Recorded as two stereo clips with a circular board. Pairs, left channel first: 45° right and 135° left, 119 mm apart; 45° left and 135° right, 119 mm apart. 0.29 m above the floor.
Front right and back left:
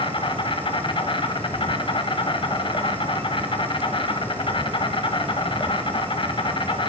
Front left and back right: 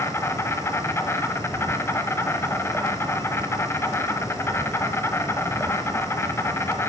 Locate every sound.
0.0 s an insect: 15° right, 0.9 m